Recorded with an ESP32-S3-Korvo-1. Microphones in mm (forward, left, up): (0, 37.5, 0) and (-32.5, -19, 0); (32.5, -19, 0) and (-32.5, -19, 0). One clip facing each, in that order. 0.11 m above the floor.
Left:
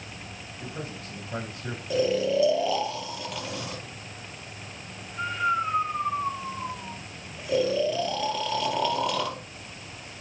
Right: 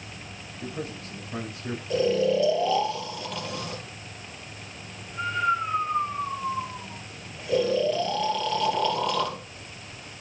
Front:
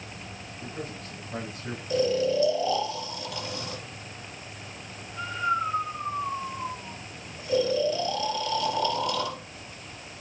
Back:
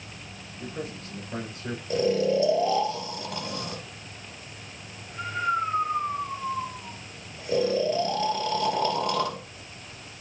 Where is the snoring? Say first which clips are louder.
Right 1 dB, back 1 dB; 145° left, 2.5 m.